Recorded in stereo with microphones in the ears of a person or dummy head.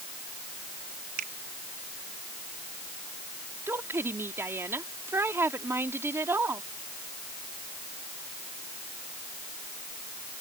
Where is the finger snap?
50° right (ahead or behind).